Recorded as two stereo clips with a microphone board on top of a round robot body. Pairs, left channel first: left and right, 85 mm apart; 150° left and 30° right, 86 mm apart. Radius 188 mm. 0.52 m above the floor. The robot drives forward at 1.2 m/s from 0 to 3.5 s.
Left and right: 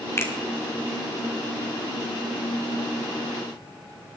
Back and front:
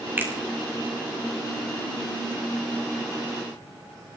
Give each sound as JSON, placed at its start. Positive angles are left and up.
{"t": 0.2, "sound": "a finger snap", "azimuth_deg": 30, "distance_m": 2.5}